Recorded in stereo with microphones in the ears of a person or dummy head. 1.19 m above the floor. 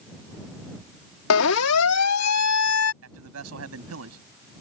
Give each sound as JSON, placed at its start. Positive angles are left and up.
{"t": 1.3, "sound": "a siren", "side_deg": 80}
{"t": 3.0, "sound": "a man speaking", "side_deg": -90}